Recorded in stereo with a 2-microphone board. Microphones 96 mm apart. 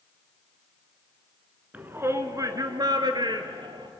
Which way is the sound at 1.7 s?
20° right (ahead or behind).